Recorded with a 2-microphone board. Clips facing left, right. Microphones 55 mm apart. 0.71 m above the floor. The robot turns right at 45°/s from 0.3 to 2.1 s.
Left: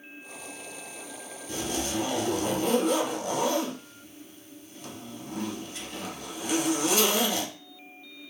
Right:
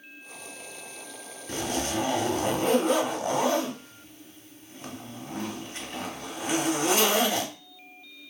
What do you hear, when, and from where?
1.5 s a zipper: 50° right (ahead or behind), 0.7 m; by 7.5 s 40° right (ahead or behind), 0.7 m